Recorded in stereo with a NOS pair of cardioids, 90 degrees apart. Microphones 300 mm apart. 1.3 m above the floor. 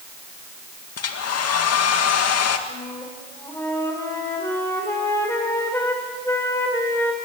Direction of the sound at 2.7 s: 10° left.